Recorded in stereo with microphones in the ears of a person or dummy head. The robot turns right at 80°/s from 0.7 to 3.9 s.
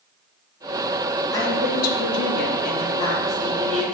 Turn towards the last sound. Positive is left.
turn(degrees=-135)